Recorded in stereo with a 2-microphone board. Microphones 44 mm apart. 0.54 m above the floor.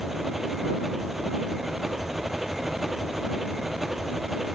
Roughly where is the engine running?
Centre.